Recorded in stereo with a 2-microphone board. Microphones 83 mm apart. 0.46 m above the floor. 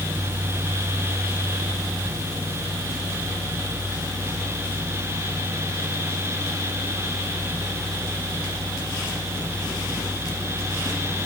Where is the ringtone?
I don't hear a ringtone.